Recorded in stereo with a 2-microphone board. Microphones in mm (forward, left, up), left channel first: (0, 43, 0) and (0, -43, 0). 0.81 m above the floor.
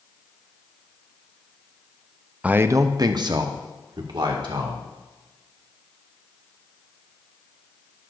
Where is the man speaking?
15° right (ahead or behind), 0.5 m; by 4.8 s 70° right (ahead or behind), 2.5 m.